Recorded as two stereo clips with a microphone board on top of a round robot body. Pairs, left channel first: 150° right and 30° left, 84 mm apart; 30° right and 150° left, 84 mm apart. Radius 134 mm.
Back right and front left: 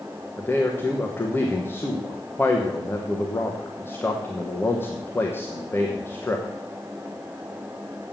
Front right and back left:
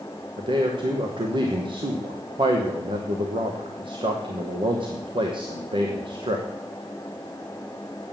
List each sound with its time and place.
0.4 s a man speaking: 145° left, 1.3 m